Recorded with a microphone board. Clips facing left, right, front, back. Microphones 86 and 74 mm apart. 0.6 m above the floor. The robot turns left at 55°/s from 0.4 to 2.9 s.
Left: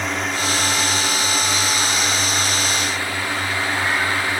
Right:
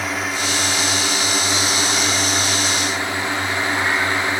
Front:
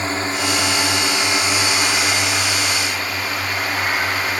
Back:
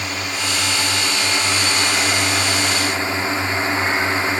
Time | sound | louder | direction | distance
0.0 | a drone | even, front 4 dB | 5° right | ?